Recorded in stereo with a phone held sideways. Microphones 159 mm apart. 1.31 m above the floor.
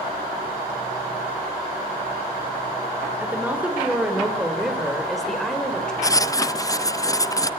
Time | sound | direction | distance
3.2 | a woman speaking | 10° right (ahead or behind) | 4 m
6.0 | writing | 20° left (ahead or behind) | 0.5 m